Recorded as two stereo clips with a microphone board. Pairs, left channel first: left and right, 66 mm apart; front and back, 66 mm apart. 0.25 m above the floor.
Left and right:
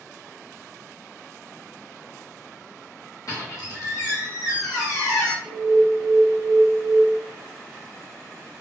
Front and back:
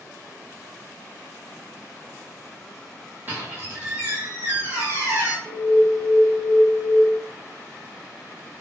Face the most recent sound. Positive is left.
turn(degrees=85)